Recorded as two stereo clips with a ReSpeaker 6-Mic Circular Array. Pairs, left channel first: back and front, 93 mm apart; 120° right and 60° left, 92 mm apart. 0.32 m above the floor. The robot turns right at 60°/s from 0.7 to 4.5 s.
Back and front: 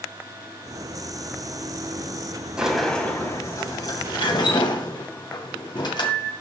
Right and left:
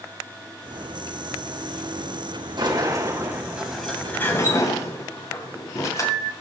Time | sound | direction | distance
2.6 | a sliding door | 80° left | 2 m